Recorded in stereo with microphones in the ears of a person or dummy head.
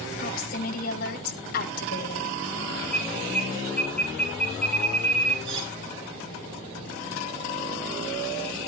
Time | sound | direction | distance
0.2 | a woman speaking | 50° left (ahead or behind) | 7 m
2.9 | an alarm | 5° left (ahead or behind) | 9.5 m
5.5 | cutlery clinking | 25° right (ahead or behind) | 8 m